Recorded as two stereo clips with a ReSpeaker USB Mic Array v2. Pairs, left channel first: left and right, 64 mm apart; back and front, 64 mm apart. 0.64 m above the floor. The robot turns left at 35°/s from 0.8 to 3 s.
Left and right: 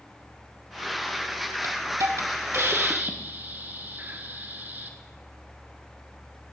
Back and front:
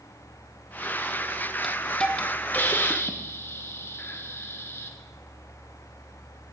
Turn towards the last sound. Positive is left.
turn(degrees=-140)